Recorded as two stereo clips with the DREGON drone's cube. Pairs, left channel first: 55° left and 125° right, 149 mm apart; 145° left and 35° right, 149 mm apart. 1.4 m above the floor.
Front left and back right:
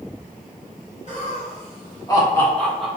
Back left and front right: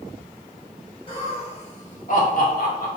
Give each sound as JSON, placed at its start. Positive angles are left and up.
{"t": 1.1, "sound": "laughter", "azimuth_deg": 95, "distance_m": 2.0}